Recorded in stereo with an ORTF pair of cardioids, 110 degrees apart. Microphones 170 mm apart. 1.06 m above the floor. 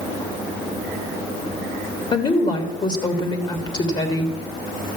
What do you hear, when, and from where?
2.1 s a woman speaking: 30° left, 1.6 m